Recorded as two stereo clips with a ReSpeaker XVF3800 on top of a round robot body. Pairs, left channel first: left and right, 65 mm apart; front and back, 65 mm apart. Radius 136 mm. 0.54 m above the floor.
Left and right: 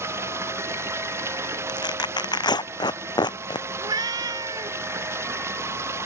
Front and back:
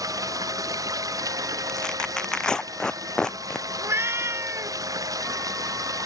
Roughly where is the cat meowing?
Behind right.